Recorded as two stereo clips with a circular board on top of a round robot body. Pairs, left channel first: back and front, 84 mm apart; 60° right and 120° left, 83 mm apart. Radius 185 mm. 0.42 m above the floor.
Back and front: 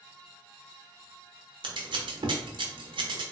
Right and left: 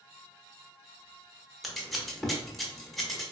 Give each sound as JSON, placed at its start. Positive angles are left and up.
{"t": 1.6, "sound": "scissors", "azimuth_deg": 30, "distance_m": 0.7}